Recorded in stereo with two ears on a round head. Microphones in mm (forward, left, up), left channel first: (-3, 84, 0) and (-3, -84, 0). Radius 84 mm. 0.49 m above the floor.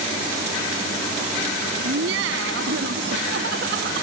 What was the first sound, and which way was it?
Laughter, 75° right (ahead or behind).